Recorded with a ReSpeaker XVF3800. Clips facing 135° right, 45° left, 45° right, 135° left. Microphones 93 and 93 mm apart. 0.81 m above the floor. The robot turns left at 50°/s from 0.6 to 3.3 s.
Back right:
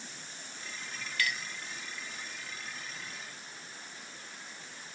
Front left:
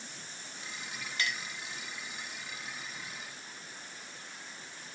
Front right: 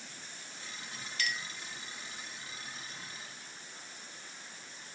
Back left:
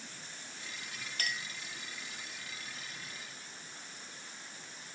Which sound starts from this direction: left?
A clink, at 1.2 s.